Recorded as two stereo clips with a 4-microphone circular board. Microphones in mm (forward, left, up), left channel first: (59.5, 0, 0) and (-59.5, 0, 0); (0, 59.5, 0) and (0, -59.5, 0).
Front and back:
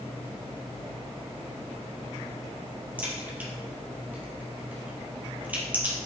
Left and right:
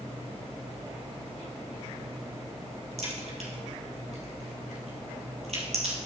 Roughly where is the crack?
Right.